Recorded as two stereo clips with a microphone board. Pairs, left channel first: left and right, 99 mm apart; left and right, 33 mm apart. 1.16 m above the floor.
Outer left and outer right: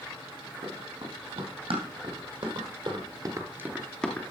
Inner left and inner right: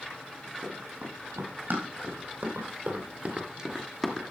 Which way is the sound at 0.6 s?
70° right (ahead or behind).